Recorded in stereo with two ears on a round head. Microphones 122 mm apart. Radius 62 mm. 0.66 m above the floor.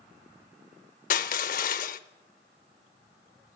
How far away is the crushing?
About 0.7 m.